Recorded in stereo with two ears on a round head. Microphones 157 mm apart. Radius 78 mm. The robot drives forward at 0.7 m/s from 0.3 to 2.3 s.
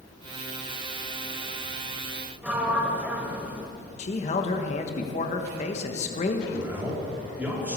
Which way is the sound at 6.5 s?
10° right (ahead or behind).